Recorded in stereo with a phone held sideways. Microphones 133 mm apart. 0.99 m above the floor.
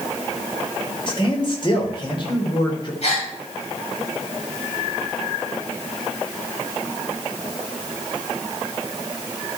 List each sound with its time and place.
1.1 s a man speaking: 40° left (ahead or behind), 3 m
3.0 s a gasp: 55° left (ahead or behind), 4.5 m